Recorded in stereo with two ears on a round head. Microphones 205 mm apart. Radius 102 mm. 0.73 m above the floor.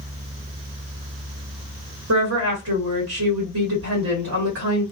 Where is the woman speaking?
60° right (ahead or behind), 1.6 m.